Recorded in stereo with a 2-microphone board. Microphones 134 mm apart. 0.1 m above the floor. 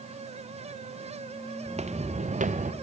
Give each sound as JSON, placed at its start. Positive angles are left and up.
{"t": 1.6, "sound": "footsteps", "side_deg": -50, "distance_m": 1.0}